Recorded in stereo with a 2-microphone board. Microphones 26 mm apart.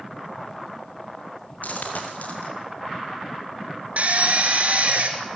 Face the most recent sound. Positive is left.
turn(degrees=-60)  # may be behind; listen again after turning